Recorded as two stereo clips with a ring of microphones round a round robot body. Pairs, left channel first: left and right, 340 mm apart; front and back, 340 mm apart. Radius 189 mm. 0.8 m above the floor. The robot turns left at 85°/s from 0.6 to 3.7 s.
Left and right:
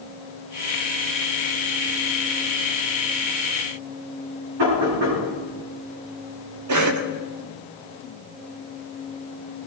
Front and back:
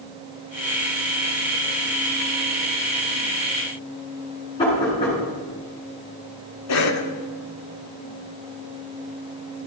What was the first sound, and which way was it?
Knocking, 80° right.